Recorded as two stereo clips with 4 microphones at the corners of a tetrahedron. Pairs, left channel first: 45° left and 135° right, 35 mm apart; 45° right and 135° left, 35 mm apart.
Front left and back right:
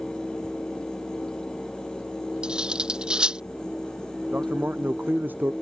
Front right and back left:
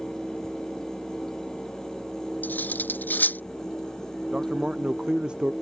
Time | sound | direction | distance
2.4 | cutlery clinking | 75° right | ?
4.3 | a man speaking | 160° right | ?